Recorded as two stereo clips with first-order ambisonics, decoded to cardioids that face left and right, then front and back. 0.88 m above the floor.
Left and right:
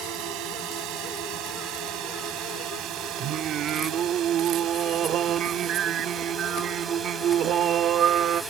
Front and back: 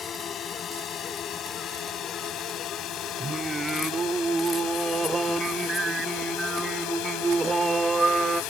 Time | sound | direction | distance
0.0 | a drone | 60° right | ?
3.2 | singing | 110° right | ?